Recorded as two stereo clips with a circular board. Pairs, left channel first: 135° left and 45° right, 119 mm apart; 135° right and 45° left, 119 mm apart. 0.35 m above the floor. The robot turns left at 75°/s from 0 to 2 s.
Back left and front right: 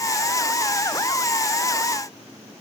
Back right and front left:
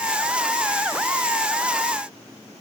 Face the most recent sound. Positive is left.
No sound to turn to.